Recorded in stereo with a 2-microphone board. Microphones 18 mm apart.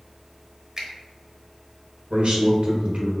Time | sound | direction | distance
0.8 | a finger snap | 35° right (ahead or behind) | 1.1 m
2.1 | a man speaking | 80° right | 1.3 m